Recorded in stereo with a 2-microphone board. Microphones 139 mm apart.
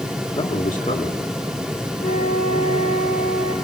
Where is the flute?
65° left (ahead or behind), 6.5 m.